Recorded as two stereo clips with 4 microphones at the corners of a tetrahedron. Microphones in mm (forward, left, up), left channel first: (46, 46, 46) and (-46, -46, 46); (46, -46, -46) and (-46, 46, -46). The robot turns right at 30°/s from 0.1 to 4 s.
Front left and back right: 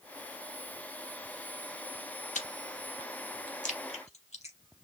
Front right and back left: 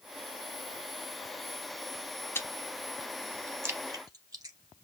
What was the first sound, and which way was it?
Chewing, 25° left.